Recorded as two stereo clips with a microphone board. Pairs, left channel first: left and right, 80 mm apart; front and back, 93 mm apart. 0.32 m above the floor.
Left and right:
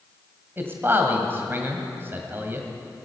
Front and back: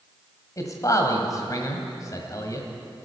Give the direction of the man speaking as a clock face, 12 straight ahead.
1 o'clock.